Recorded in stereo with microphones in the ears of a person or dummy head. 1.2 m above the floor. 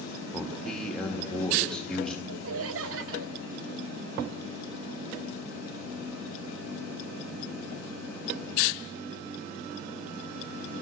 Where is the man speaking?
5° left (ahead or behind), 1.7 m.